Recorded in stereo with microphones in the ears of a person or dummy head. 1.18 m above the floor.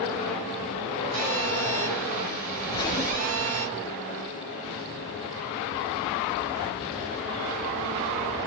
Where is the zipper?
20° left (ahead or behind), 0.6 m.